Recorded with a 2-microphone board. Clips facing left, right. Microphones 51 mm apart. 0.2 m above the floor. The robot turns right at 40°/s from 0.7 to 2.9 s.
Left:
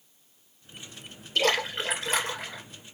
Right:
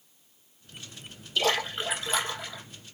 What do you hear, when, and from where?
1.4 s a splash: 55° left, 2.5 m; by 2.6 s 105° left, 2.5 m